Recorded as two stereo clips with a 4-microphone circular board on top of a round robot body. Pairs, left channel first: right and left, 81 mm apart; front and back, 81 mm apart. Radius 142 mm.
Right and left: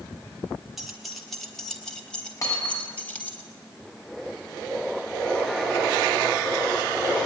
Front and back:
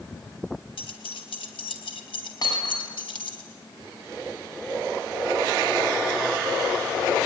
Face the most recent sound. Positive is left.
turn(degrees=-40)